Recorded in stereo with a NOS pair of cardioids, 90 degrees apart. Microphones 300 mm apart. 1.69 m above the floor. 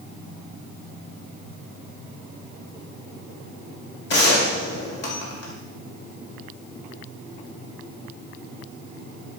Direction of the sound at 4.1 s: 40° left.